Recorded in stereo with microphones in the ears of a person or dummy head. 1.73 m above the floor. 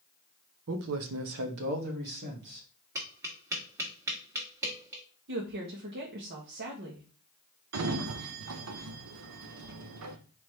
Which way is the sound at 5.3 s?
60° right (ahead or behind).